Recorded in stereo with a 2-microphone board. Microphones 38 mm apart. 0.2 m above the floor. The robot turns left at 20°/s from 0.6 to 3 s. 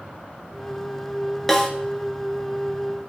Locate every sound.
1.5 s a snare drum: 10° left (ahead or behind), 1.5 m; by 1.7 s 15° left (ahead or behind), 1.5 m